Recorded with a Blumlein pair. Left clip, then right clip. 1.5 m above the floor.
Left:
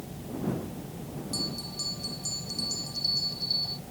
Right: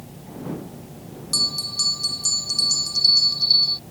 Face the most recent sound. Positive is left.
turn(degrees=-30)